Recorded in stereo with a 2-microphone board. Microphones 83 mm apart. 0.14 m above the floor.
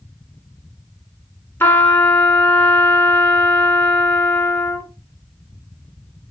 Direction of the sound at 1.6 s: 25° left (ahead or behind).